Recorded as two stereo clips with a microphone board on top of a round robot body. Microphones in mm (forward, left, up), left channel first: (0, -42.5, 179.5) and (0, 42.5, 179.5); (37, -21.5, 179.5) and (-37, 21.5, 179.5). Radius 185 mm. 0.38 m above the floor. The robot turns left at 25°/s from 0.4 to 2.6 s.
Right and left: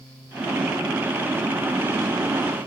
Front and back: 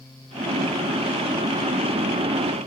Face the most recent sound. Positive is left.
No sound to turn to.